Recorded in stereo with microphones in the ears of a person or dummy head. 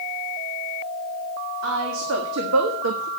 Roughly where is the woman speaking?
Right.